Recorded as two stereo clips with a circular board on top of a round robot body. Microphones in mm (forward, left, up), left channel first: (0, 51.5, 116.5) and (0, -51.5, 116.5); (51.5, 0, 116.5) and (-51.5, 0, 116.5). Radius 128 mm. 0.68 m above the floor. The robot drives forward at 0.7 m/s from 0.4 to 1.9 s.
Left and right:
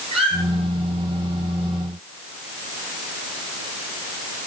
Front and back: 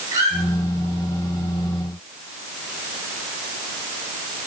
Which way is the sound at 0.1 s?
120° right.